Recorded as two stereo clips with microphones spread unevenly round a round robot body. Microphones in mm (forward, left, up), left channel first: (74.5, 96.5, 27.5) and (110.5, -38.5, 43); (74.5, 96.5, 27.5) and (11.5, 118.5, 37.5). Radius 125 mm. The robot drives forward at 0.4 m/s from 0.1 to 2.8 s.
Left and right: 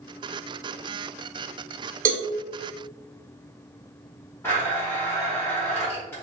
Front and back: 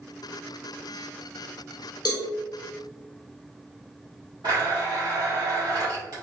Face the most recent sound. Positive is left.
turn(degrees=170)